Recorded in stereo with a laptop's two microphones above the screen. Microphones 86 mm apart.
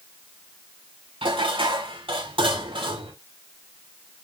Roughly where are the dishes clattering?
Right.